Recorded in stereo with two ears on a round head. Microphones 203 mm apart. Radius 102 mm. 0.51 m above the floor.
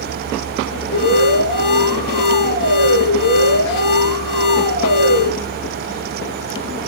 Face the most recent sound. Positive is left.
turn(degrees=60)  # may be behind; listen again after turning